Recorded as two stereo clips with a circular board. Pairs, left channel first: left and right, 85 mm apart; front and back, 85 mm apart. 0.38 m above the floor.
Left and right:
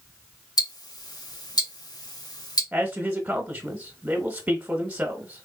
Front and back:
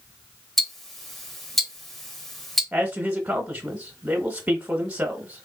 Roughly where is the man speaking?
Behind right.